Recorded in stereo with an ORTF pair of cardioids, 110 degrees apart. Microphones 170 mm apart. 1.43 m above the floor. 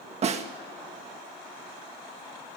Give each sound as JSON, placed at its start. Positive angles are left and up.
{"t": 0.2, "sound": "a snare drum", "azimuth_deg": -40, "distance_m": 1.7}